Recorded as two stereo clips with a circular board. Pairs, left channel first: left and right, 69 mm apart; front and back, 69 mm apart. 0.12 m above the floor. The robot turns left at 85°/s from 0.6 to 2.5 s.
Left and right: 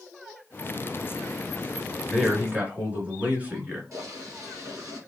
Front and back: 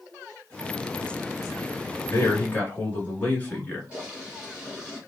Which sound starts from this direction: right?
Boiling, at 3.9 s.